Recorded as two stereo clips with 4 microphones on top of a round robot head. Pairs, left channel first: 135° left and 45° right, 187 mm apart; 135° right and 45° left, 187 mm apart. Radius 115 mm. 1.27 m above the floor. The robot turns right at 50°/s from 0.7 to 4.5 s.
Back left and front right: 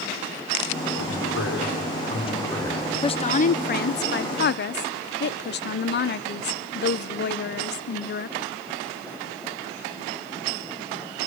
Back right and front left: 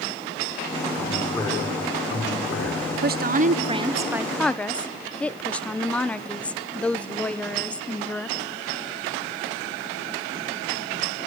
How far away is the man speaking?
About 4 m.